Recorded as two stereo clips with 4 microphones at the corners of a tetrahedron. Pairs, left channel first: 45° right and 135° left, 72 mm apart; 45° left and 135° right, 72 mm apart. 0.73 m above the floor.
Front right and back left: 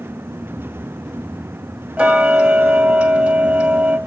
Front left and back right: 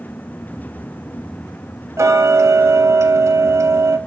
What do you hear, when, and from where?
2.0 s ticking: 155° right, 1.5 m